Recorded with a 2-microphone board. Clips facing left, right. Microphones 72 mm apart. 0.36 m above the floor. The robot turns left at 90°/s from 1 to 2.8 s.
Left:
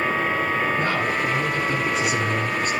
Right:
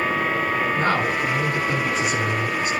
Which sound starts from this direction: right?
A man speaking, at 0.8 s.